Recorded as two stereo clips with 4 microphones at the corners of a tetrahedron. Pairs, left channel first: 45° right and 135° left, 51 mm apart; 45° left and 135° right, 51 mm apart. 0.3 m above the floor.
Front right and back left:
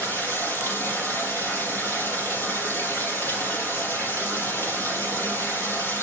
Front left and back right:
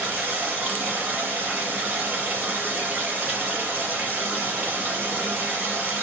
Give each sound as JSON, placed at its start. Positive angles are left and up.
{"t": 0.0, "sound": "running water", "azimuth_deg": -85, "distance_m": 6.0}